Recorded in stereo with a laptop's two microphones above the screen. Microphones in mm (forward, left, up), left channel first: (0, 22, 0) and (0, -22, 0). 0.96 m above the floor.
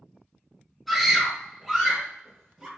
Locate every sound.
0.9 s a scream: 5° right (ahead or behind), 0.9 m; by 2.7 s 20° right (ahead or behind), 1.7 m